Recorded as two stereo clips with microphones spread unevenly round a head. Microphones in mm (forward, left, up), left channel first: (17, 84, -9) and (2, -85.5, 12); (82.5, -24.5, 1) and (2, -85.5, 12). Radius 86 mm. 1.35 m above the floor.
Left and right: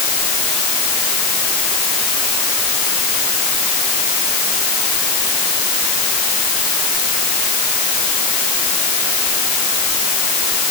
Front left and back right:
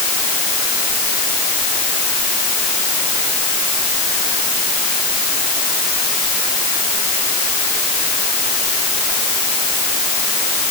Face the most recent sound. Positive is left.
No sound to turn to.